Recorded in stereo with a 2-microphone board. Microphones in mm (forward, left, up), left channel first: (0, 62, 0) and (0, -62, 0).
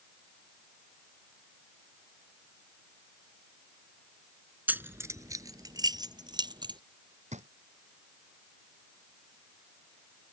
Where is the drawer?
70° right (ahead or behind).